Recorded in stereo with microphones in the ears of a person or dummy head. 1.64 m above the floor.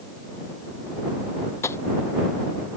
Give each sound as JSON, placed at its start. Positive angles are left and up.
{"t": 1.6, "sound": "tapping", "side_deg": 20}